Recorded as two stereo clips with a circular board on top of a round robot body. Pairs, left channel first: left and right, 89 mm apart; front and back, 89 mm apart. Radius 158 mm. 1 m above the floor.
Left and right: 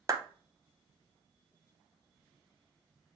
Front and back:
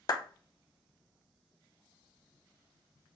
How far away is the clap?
About 0.8 m.